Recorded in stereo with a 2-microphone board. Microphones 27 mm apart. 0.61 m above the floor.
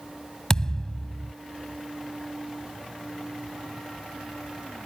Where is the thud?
25° left (ahead or behind).